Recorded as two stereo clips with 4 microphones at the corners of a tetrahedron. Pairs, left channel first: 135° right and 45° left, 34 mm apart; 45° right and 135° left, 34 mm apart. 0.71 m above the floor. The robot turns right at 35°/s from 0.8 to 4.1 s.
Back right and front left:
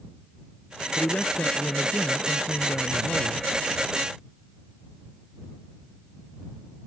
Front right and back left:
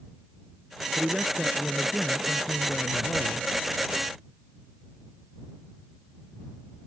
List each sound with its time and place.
1.0 s a man speaking: 170° right; by 3.5 s 80° right